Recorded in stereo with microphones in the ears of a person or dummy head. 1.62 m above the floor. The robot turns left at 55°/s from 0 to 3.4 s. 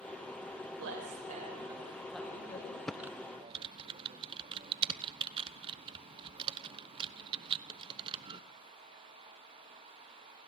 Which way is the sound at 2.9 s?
5° left (ahead or behind).